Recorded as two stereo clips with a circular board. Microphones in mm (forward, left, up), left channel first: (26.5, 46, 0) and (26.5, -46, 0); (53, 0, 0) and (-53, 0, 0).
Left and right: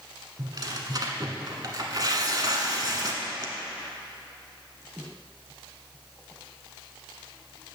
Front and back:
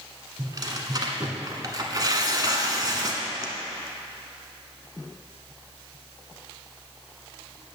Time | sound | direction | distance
0.4 | tearing paper | 130° right | 1.0 m